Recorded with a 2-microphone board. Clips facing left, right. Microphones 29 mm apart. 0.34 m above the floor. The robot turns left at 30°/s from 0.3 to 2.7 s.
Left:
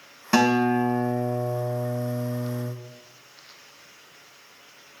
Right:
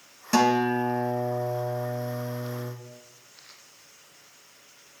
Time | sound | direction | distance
0.3 | a guitar | 160° left | 0.7 m